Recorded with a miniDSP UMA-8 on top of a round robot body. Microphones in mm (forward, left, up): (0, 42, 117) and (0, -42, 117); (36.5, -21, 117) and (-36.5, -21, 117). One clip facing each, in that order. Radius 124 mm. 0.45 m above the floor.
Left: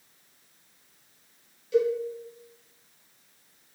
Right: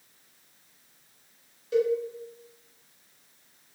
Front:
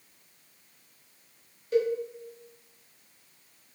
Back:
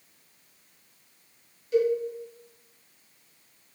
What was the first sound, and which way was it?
A cowbell, 45° right.